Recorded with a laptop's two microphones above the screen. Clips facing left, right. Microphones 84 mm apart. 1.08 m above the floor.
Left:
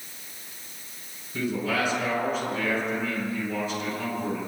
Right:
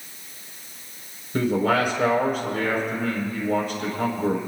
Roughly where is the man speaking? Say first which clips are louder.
Right 6 dB; right.